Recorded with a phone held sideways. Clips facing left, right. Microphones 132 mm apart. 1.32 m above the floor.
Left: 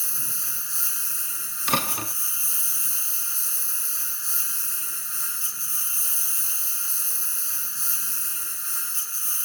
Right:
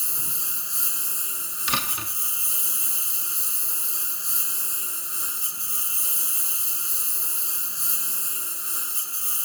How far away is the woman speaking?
I don't hear a woman speaking.